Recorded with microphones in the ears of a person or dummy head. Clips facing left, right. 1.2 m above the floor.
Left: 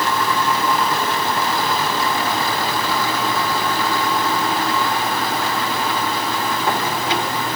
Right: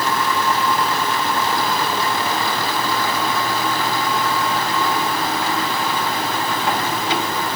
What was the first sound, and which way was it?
Only background noise.